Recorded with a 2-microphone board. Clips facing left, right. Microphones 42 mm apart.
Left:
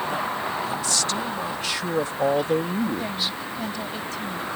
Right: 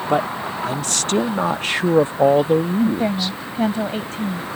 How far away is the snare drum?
No snare drum in this recording.